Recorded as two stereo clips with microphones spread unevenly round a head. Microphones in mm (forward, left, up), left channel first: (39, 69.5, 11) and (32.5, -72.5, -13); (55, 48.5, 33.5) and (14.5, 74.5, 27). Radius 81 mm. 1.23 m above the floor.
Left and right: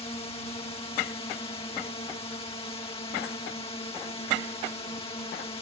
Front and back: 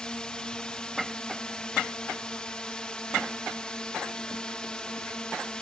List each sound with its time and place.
0.0 s a drone: 35° left